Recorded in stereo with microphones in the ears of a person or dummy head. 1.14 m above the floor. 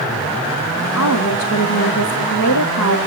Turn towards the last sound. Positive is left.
turn(degrees=75)  # may be behind; listen again after turning